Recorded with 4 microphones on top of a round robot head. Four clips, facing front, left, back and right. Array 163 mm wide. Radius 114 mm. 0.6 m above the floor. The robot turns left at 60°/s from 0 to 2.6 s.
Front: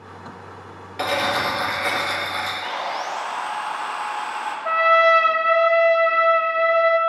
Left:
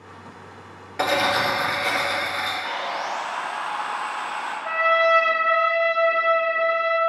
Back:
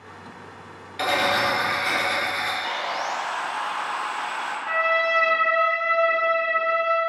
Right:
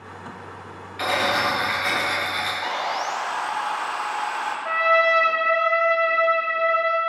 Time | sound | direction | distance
1.0 | cutlery clinking | 65° left | 1.3 m
2.6 | sawing | 60° right | 0.8 m
4.7 | a trumpet | straight ahead | 0.7 m